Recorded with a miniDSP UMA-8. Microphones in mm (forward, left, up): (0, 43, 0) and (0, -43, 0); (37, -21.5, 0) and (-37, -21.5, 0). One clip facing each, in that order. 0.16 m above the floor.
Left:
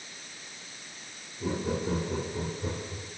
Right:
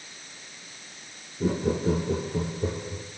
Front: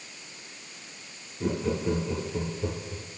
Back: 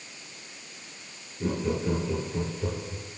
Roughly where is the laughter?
Right.